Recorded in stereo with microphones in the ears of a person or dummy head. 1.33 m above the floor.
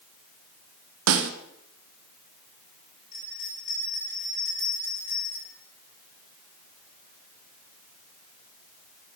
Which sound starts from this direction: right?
A snare drum, at 1.1 s.